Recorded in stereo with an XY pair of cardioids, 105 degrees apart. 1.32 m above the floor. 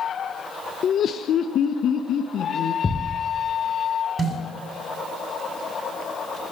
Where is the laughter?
55° left, 1.0 m; by 2.7 s 70° left, 2.5 m.